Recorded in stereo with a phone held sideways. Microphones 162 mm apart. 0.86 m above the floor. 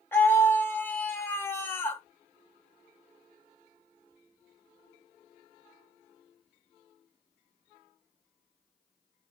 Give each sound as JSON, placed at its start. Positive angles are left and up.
{"t": 0.1, "sound": "a scream", "side_deg": 15, "distance_m": 0.6}